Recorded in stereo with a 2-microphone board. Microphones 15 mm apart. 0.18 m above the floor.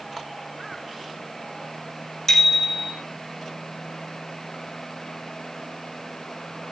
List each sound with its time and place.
2.3 s a bicycle bell: 35° left (ahead or behind), 7 m